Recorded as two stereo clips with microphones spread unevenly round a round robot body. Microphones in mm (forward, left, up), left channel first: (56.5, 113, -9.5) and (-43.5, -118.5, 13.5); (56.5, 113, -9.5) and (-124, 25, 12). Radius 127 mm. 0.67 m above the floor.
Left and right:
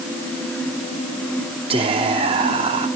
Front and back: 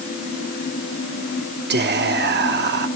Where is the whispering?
175° left, 1.2 m.